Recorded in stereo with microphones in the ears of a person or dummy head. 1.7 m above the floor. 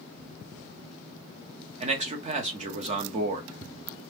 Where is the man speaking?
30° right (ahead or behind), 0.9 m.